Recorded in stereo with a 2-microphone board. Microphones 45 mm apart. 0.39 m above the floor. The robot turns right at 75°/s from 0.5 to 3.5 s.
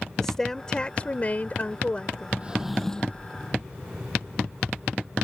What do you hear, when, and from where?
0.2 s a woman speaking: 15° left; by 2.3 s 150° left
2.4 s a drawer: 30° right; by 3.3 s 40° left